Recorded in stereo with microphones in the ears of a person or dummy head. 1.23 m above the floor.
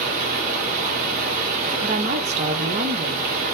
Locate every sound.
0.0 s running water: 45° right (ahead or behind), 1.5 m
1.8 s a woman speaking: 35° right (ahead or behind), 0.7 m